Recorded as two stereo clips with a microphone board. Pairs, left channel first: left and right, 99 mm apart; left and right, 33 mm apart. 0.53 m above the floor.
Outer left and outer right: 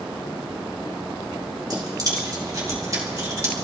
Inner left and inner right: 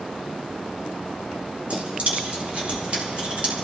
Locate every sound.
1.7 s keys jangling: 40° right (ahead or behind), 4 m; by 3.5 s 30° right (ahead or behind), 5 m